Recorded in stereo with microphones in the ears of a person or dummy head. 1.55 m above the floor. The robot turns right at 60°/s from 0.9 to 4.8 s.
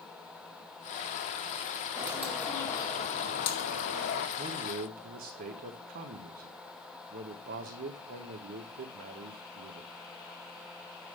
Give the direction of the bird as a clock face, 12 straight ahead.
1 o'clock.